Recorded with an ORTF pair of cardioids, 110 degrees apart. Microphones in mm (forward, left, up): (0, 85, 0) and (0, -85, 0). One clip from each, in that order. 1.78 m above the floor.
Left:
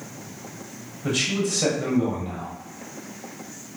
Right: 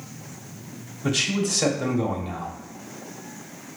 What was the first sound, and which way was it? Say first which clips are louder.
A man speaking: even; 25° right.